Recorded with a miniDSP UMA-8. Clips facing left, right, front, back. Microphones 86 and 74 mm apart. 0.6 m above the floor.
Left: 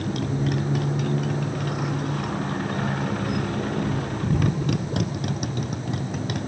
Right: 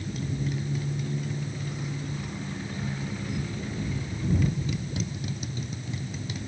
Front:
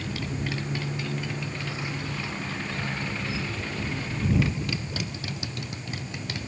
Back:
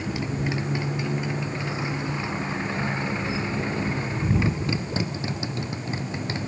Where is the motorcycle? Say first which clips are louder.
Left 7 dB, back 4 dB; 110° left; by 6.5 s 115° left.